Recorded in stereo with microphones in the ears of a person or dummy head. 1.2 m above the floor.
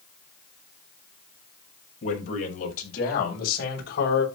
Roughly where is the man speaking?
Left.